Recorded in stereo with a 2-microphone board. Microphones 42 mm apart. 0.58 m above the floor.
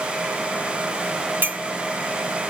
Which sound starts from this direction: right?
A clink, at 1.4 s.